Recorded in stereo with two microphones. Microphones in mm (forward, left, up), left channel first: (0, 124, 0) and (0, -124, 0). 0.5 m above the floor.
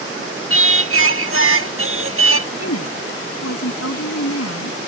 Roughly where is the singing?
Right.